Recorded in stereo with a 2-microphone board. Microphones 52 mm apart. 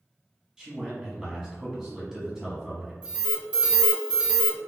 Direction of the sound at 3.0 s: 20° right (ahead or behind).